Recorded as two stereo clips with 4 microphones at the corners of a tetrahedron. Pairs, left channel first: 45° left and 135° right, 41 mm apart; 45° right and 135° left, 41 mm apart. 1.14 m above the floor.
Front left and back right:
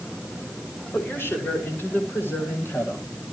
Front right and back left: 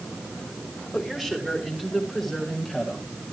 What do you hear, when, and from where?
0.9 s a woman speaking: 55° left, 6 m